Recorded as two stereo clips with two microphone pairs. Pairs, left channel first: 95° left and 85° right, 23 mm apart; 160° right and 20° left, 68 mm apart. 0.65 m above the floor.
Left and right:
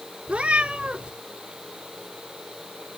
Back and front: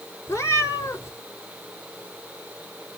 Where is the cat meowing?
110° right, 3.5 m.